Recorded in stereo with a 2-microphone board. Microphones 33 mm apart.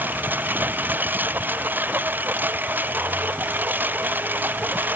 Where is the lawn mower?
80° right.